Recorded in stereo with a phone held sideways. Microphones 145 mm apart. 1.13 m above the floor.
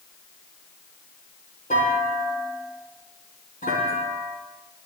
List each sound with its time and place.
1.7 s a clunk: 80° left, 9 m